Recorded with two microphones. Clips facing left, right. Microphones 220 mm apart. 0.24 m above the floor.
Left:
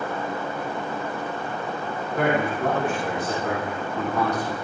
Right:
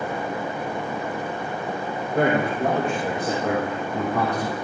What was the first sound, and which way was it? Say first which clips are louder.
A man speaking: right 2 dB; 45° right (ahead or behind).